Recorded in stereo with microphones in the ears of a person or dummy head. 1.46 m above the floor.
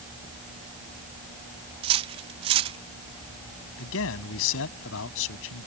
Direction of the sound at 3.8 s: 80° left.